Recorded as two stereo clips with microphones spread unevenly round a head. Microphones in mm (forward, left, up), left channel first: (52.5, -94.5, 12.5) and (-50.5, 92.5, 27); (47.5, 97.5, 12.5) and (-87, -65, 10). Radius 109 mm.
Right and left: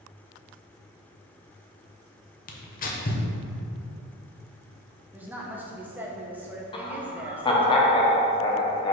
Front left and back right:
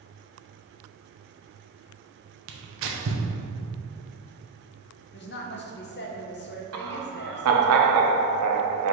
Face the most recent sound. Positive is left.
turn(degrees=-130)